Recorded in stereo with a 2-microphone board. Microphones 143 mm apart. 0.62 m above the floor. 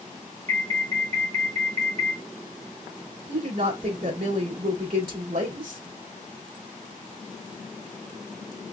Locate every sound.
0.5 s an alarm: 55° right (ahead or behind), 2.5 m
3.3 s a woman speaking: 70° right (ahead or behind), 3 m